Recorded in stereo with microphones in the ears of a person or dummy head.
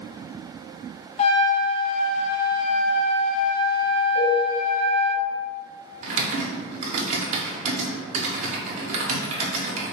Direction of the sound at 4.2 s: 50° left (ahead or behind).